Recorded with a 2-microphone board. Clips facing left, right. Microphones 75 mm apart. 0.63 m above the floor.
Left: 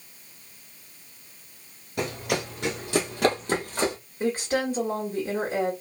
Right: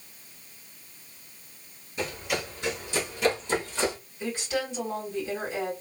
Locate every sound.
2.0 s running footsteps: 70° left (ahead or behind), 1.8 m; by 4.0 s 40° left (ahead or behind), 1.4 m
4.2 s a woman speaking: 45° left (ahead or behind), 1.6 m